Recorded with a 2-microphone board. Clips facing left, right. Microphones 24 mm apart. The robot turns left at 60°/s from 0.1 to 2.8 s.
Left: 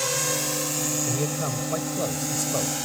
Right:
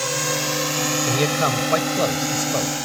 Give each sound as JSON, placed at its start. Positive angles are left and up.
{"t": 0.0, "sound": "a drone", "side_deg": -15}
{"t": 1.1, "sound": "a man speaking", "azimuth_deg": -70}